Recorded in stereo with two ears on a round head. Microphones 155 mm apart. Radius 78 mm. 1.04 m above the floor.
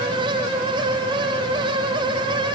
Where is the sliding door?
I don't hear a sliding door.